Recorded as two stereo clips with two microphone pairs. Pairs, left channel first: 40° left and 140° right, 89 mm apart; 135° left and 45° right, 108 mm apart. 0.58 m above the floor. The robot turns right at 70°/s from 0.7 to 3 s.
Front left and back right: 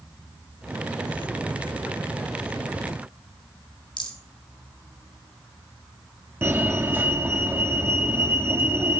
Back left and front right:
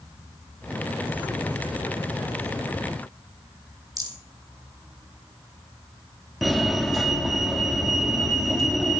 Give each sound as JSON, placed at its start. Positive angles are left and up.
{"t": 4.0, "sound": "a rattle", "azimuth_deg": 10, "distance_m": 5.0}
{"t": 6.4, "sound": "a fire alarm", "azimuth_deg": -135, "distance_m": 1.7}